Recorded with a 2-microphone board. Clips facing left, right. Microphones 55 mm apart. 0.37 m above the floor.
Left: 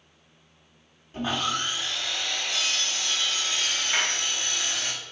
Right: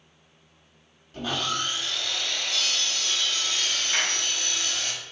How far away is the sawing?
About 0.8 m.